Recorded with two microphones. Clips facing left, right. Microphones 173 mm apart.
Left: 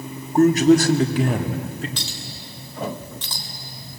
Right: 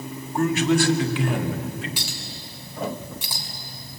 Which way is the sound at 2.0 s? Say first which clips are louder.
Left 1 dB; 10° right (ahead or behind).